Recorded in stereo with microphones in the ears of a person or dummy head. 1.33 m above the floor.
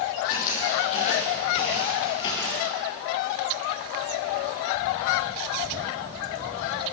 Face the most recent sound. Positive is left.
turn(degrees=5)  # may be behind; listen again after turning